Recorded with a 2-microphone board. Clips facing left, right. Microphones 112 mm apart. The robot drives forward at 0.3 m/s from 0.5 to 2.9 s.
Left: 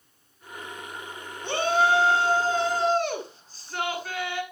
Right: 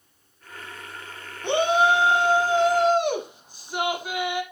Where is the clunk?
No clunk in this recording.